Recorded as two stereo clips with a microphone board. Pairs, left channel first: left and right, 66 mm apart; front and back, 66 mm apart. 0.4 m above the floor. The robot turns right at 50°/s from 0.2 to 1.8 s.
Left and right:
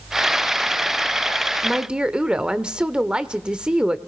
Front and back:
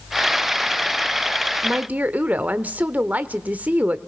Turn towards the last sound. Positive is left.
turn(degrees=-150)